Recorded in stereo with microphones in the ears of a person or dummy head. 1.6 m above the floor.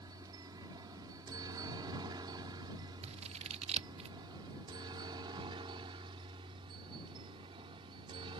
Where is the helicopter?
20° right (ahead or behind); by 8.4 s 25° right (ahead or behind).